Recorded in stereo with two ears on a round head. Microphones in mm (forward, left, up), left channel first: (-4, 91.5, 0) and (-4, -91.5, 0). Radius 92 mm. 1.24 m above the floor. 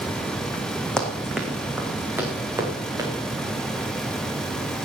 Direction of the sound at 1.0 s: 5° left (ahead or behind).